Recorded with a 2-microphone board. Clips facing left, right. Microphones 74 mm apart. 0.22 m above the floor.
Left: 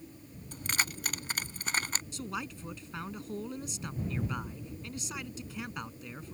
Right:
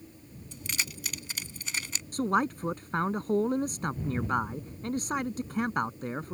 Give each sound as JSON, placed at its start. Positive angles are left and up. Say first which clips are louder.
{"t": 0.5, "sound": "keys jangling", "louder": "left 3 dB", "side_deg": 50}
{"t": 2.1, "sound": "a man speaking", "louder": "right 17 dB", "side_deg": -55}